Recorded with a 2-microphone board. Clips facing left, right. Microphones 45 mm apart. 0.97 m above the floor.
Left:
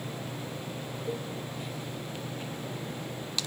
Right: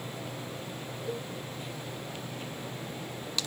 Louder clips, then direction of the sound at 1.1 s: Left 1 dB; 10° left (ahead or behind).